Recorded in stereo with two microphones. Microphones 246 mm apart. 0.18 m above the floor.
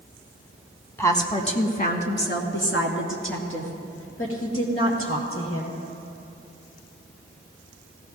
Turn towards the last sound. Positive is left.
turn(degrees=60)  # may be behind; listen again after turning